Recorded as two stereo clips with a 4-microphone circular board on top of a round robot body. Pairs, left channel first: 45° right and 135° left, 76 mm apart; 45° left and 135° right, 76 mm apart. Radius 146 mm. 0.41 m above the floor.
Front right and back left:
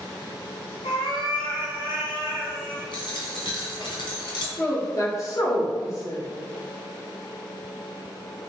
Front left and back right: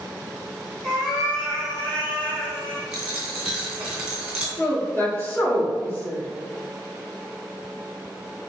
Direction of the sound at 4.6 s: 15° right.